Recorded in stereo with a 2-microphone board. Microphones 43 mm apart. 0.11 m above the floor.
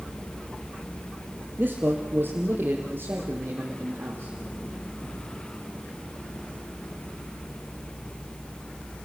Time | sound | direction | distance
1.6 | a man speaking | 50° right (ahead or behind) | 2.5 m